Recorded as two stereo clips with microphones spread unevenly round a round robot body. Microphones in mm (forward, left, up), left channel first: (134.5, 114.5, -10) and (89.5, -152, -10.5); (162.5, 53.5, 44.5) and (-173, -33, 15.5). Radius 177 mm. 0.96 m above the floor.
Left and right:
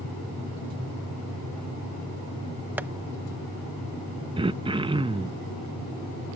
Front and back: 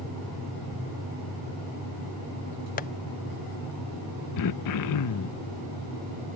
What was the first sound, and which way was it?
Tapping, 25° right.